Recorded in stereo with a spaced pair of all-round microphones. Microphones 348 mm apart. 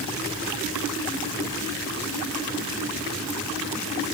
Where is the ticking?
I don't hear ticking.